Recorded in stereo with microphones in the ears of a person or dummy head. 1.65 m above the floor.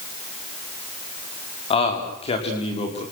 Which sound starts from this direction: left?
A man speaking, at 1.7 s.